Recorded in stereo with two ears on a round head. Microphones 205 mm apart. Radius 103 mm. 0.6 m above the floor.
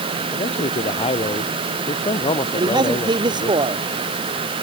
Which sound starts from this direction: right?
A man speaking, at 2.6 s.